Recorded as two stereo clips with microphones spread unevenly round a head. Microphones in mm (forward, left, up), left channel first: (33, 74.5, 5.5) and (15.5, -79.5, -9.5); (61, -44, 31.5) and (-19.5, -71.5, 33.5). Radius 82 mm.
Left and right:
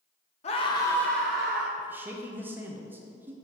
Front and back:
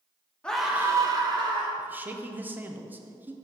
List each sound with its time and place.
0.4 s a scream: 85° left, 0.8 m; by 1.7 s 175° right, 1.5 m
1.8 s a man speaking: 135° right, 0.6 m